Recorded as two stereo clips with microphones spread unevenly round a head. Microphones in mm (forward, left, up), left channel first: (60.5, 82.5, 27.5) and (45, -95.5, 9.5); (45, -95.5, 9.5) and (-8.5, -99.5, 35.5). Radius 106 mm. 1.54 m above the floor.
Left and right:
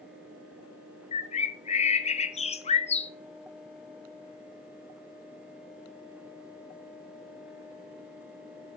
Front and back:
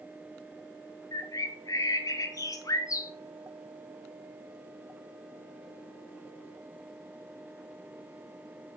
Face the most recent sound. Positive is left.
turn(degrees=30)